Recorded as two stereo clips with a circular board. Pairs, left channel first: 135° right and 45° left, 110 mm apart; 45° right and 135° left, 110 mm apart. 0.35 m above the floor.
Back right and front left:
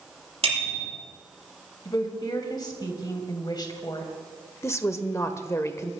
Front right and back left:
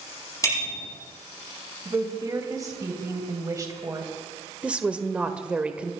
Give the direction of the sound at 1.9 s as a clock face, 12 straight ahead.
6 o'clock.